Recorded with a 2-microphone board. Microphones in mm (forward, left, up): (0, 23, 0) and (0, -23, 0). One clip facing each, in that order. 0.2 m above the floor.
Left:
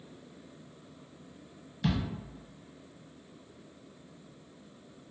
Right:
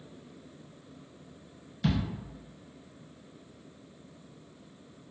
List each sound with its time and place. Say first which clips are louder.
1.8 s a thud: right 1 dB; 5° left (ahead or behind), 1.4 m